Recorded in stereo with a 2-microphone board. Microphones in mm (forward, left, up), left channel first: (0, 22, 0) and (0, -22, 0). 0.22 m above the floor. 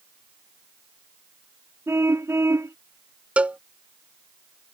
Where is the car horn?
80° right.